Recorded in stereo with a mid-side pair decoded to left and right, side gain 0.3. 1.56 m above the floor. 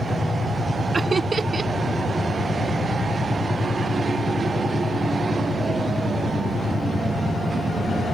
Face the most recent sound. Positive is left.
turn(degrees=-50)